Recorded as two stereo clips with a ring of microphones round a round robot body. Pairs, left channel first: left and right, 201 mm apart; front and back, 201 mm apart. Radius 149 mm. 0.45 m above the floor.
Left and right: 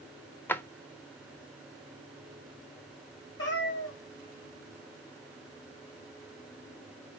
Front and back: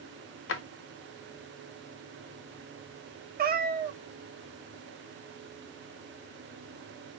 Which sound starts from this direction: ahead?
A drawer, at 0.5 s.